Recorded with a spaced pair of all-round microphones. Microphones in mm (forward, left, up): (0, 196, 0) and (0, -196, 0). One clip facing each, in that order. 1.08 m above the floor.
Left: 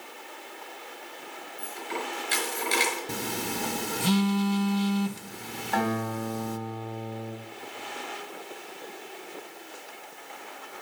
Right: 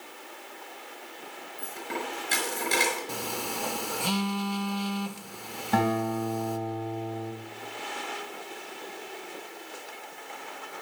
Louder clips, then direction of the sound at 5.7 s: Right 3 dB; 50° right (ahead or behind).